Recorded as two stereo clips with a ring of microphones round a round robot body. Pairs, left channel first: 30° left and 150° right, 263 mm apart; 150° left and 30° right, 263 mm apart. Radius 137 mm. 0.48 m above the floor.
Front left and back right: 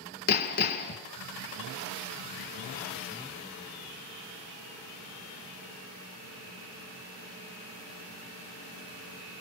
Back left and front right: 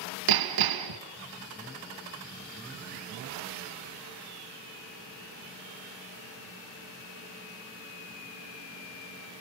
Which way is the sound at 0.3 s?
30° right.